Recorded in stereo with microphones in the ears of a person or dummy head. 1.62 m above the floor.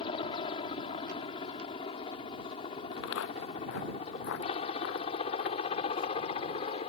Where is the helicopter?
25° left (ahead or behind); by 6.9 s 30° left (ahead or behind).